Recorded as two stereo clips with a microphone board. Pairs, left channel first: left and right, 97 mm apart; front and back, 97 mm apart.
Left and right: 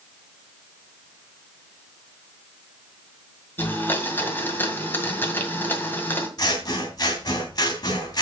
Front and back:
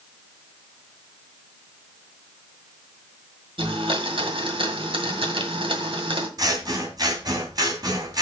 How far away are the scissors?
About 2.5 m.